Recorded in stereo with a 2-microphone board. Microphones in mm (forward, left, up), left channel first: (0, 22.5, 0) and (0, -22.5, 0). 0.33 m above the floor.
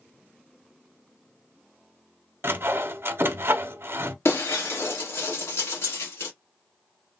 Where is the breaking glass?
75° left (ahead or behind), 1.5 m.